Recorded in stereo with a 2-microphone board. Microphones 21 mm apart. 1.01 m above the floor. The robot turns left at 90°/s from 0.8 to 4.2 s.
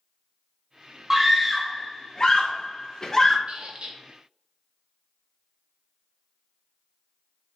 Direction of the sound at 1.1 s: 20° right (ahead or behind).